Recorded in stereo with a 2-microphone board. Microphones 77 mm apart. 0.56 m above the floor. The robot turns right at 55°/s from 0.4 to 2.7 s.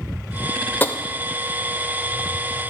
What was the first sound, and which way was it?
Tapping, 25° left (ahead or behind).